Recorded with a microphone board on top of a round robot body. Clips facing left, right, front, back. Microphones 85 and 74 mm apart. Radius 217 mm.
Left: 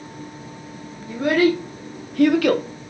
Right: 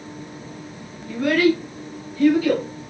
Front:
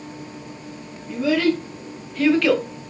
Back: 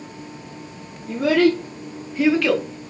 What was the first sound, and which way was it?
A child speaking, 165° left.